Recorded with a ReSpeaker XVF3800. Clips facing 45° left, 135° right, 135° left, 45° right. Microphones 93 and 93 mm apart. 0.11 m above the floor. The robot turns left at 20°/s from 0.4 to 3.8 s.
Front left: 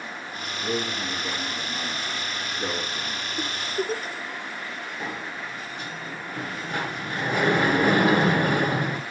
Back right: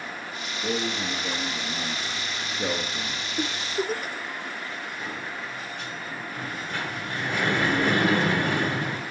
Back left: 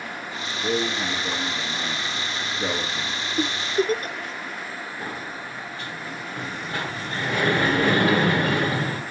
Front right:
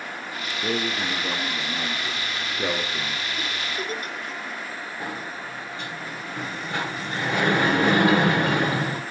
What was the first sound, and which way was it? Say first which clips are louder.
A man speaking: even, back left 2 dB; 40° right.